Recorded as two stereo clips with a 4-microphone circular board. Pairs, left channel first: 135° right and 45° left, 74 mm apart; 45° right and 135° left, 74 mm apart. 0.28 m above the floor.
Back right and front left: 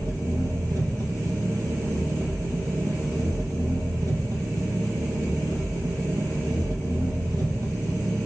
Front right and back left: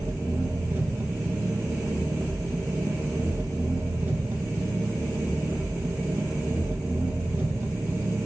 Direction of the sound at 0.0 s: 70° left.